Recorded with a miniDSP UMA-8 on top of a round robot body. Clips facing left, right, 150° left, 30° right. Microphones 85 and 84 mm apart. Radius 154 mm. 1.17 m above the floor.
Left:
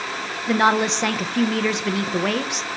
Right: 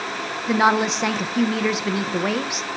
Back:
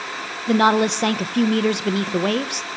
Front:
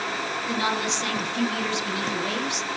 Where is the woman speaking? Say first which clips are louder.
Even, back 12 dB; 175° right, 1.0 m.